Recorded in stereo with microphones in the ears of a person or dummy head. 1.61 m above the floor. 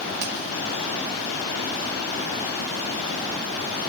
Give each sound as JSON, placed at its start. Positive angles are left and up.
{"t": 0.2, "sound": "a finger snap", "side_deg": -45, "distance_m": 2.5}